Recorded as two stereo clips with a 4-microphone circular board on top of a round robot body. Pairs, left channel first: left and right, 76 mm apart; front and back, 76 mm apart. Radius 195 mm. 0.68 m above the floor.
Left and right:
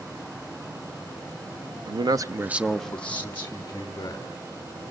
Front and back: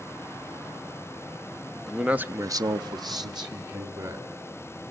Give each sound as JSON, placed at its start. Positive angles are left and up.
{"t": 1.9, "sound": "a man speaking", "azimuth_deg": -90, "distance_m": 1.2}